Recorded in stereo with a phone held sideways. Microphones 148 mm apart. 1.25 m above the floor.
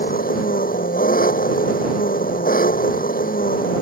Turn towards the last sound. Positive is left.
turn(degrees=85)